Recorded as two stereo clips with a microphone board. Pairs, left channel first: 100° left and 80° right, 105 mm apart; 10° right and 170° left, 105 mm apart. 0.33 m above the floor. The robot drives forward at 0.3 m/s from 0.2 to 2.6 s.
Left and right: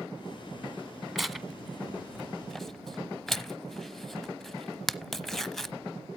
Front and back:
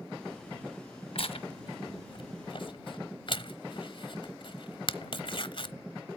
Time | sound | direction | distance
1.1 | tearing paper | 10° left | 1.4 m